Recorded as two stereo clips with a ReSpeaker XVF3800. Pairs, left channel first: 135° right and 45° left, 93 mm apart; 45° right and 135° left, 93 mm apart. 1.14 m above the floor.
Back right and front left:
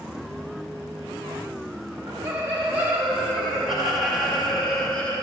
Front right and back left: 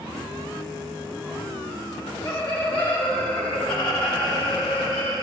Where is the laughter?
15° right, 2.5 m; by 5.2 s 60° right, 2.5 m.